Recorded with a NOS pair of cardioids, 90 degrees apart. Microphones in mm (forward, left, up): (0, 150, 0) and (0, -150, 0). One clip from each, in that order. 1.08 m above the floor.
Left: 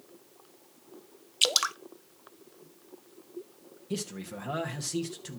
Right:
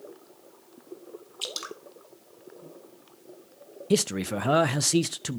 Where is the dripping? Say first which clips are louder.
Left 10 dB; 55° left, 0.7 m.